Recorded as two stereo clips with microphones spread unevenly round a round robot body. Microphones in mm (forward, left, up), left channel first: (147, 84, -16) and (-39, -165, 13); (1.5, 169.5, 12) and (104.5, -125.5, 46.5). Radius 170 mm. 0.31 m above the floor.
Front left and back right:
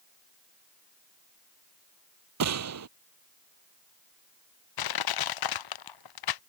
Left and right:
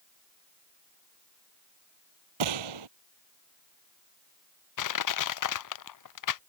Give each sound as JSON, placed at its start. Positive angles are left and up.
{"t": 2.4, "sound": "a gunshot", "azimuth_deg": -90}
{"t": 4.8, "sound": "crushing", "azimuth_deg": 85}